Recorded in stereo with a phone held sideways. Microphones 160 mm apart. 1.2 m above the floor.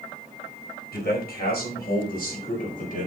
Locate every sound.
0.9 s a man speaking: 75° left (ahead or behind), 4.5 m; by 3.1 s 55° left (ahead or behind), 4.5 m